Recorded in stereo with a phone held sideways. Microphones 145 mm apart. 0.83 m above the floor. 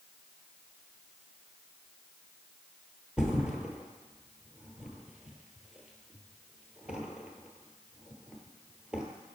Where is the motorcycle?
I don't hear a motorcycle.